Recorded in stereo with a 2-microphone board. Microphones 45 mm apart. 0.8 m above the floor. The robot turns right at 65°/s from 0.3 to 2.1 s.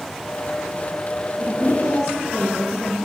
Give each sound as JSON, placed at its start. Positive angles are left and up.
{"t": 1.4, "sound": "a woman speaking", "azimuth_deg": -65, "distance_m": 3.5}